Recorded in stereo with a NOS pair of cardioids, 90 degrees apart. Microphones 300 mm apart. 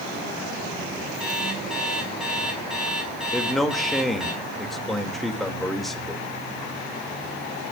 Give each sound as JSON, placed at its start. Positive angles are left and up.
{"t": 1.2, "sound": "an alarm clock", "azimuth_deg": 0, "distance_m": 7.0}
{"t": 3.3, "sound": "a man speaking", "azimuth_deg": 0, "distance_m": 3.0}